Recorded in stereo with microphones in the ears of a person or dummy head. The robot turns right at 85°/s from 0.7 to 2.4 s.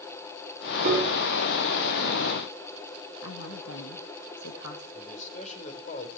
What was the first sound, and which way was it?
A piano, 45° right.